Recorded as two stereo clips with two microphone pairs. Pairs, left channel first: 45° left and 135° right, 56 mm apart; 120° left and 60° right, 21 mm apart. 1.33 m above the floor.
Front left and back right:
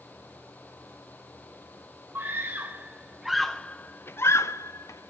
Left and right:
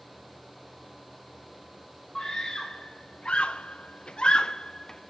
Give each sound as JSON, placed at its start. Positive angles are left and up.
{"t": 2.1, "sound": "a scream", "azimuth_deg": 180, "distance_m": 1.1}